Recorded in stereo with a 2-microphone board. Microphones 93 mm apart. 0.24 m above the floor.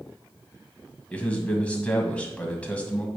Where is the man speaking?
15° left (ahead or behind), 1.5 m.